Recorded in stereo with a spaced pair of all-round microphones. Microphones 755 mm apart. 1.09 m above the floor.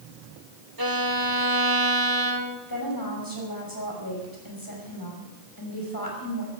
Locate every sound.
0.8 s a violin: 30° right (ahead or behind), 1.4 m
2.7 s a woman speaking: 25° left (ahead or behind), 5.5 m